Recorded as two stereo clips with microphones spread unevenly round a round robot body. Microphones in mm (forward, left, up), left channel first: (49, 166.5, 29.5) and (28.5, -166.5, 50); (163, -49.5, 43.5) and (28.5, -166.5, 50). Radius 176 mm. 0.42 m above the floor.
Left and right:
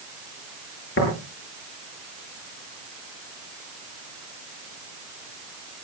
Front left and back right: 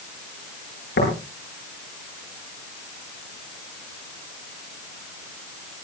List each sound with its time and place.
1.0 s tapping: 30° left, 10 m